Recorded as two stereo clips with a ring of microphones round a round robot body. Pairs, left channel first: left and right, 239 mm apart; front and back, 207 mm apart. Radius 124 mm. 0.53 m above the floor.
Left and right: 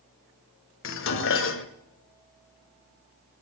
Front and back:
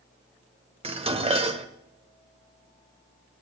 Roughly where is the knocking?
No knocking in this recording.